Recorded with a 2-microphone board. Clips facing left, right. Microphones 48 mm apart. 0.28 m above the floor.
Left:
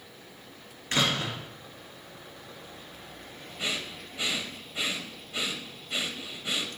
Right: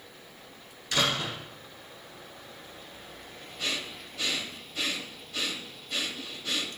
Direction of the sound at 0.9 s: 40° left (ahead or behind).